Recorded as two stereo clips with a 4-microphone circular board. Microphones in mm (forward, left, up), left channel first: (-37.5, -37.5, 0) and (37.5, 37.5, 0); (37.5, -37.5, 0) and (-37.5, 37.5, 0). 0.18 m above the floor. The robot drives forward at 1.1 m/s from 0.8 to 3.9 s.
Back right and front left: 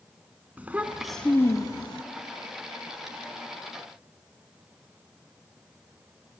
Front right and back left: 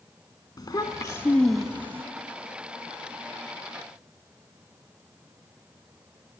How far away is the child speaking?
About 0.8 m.